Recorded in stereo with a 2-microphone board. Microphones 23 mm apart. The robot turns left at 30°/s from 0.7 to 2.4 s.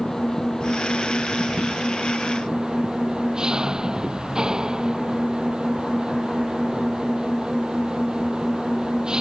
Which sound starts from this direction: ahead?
An engine running, at 0.0 s.